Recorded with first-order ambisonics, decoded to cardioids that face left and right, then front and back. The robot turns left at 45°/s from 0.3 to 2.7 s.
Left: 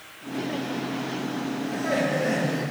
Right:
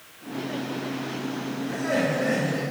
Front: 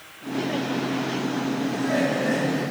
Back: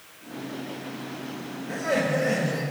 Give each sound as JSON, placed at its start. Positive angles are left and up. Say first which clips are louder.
{"t": 1.7, "sound": "laughter", "louder": "even, back 1 dB", "azimuth_deg": -150, "distance_m": 2.5}